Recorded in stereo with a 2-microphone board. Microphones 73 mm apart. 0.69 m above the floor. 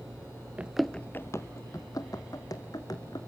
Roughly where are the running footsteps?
Right.